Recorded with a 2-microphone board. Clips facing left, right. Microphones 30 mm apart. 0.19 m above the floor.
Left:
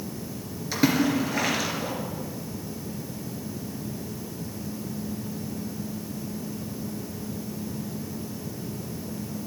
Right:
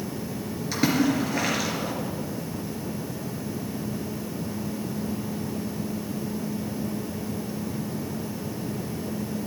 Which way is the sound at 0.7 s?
Centre (ahead or behind).